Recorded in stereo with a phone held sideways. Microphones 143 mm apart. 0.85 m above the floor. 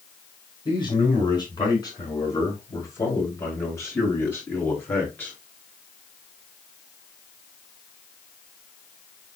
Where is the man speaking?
35° left (ahead or behind), 4.5 m; by 5.3 s 15° left (ahead or behind), 6 m.